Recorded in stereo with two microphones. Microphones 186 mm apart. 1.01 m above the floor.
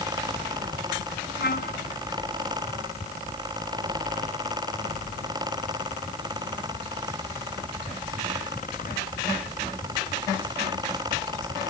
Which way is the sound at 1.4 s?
60° left (ahead or behind).